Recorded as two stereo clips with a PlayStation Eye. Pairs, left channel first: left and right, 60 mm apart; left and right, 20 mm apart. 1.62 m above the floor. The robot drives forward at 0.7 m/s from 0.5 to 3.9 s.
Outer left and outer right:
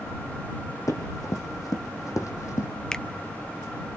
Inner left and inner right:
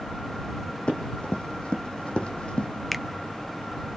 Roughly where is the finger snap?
Centre.